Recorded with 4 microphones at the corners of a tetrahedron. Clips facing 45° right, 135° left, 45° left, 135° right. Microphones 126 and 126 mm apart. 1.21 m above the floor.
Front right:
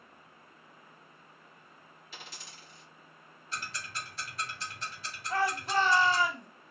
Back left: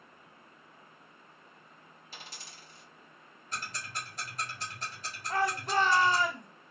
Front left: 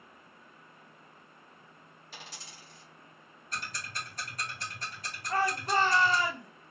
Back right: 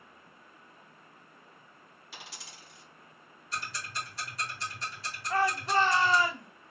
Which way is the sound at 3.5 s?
85° left.